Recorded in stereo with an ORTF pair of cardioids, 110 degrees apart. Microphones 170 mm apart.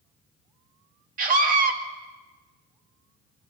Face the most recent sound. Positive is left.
turn(degrees=-55)